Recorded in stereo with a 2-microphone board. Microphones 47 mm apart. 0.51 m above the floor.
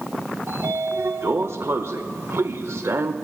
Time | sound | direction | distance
0.5 | a sliding door | 60° right (ahead or behind) | 0.6 m